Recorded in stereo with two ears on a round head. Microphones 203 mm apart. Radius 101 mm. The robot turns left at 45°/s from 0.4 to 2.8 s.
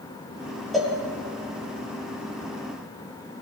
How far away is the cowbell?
About 4 m.